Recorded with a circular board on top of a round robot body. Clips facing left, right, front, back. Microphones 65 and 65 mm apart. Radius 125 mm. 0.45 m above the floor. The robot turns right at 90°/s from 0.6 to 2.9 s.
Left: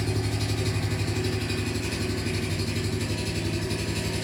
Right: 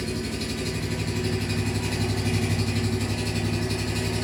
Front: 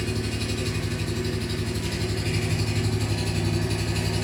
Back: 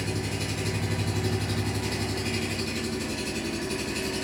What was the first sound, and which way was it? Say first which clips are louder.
An engine running: even, front 2 dB; 105° left.